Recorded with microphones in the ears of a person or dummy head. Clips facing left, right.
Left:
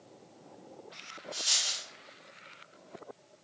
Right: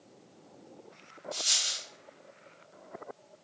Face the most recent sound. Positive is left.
turn(degrees=-15)  # may be behind; listen again after turning